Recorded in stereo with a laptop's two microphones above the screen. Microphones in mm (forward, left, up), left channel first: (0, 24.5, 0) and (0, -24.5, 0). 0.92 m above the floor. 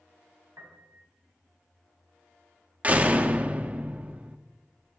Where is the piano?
80° right, 3 m.